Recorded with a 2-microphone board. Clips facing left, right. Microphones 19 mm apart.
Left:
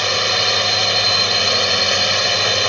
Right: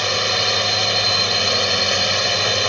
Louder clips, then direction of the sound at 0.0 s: Left 2 dB; 5° left (ahead or behind).